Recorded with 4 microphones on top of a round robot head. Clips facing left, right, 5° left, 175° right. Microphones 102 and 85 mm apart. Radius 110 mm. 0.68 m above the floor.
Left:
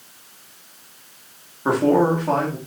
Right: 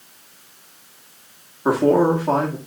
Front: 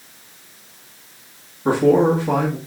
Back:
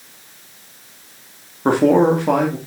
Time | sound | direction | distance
1.6 | a man speaking | 170° right | 2 m